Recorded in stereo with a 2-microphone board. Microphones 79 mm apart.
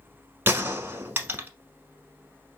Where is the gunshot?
30° right (ahead or behind), 1.1 m.